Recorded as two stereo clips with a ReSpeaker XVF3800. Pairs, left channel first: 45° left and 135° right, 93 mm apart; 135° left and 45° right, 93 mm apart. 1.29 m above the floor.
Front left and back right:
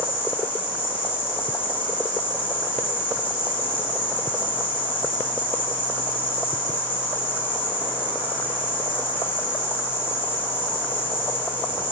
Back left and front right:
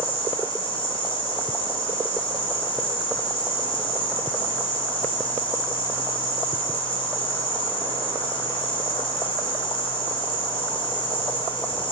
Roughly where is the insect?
Left.